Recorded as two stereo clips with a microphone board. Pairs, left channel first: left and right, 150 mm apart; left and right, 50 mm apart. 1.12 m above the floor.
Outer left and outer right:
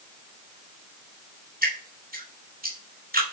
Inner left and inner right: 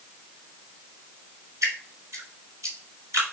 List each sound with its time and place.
1.6 s dripping: 80° right, 3.5 m